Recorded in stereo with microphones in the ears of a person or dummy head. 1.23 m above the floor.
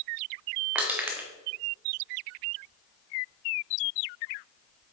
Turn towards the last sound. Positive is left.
turn(degrees=-5)  # may be behind; listen again after turning